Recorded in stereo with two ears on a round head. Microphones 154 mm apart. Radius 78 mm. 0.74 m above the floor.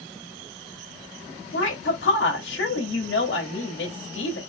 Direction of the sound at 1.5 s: 65° left (ahead or behind).